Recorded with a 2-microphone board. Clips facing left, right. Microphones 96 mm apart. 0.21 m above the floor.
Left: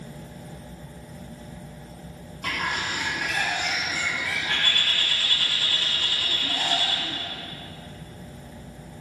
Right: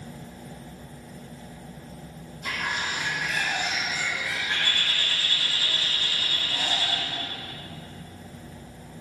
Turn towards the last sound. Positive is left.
turn(degrees=65)  # may be behind; listen again after turning